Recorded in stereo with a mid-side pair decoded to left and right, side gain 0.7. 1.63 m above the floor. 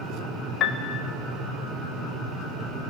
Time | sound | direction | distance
0.6 | a piano | 45° left | 0.6 m